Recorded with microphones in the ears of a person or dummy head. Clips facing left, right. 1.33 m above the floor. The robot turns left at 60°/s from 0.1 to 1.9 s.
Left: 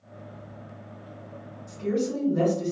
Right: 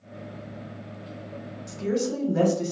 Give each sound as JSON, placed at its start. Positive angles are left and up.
{"t": 1.7, "sound": "a woman speaking", "side_deg": -80, "distance_m": 1.4}